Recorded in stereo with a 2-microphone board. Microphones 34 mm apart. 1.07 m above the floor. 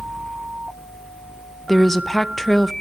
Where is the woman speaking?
10° left (ahead or behind), 0.5 m.